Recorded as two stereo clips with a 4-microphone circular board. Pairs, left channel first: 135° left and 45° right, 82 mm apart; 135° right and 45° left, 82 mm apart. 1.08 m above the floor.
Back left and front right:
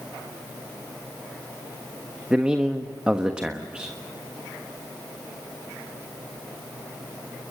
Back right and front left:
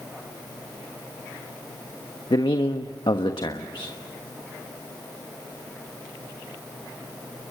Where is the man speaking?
125° right, 1.2 m.